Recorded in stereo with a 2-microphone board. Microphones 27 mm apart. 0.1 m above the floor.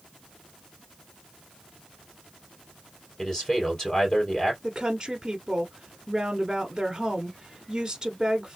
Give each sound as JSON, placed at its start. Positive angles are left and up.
{"t": 3.2, "sound": "a man speaking", "side_deg": 30, "distance_m": 3.0}
{"t": 4.6, "sound": "a woman speaking", "side_deg": -20, "distance_m": 1.3}